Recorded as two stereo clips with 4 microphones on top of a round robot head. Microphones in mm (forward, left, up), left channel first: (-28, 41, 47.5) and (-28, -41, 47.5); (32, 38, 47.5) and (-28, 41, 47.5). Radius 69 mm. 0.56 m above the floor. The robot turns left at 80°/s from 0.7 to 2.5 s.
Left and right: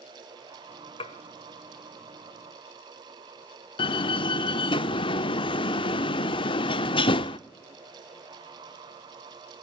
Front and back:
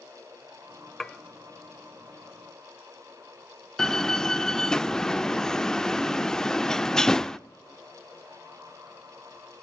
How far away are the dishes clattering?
About 1.6 m.